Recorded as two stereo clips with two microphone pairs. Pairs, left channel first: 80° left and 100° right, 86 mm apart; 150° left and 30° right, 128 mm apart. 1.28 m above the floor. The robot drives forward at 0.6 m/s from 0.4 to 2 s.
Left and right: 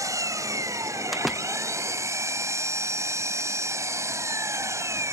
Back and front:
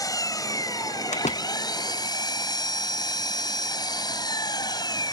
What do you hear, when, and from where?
0.0 s an engine running: 150° right; by 5.1 s 155° right
1.1 s a door slam: 170° left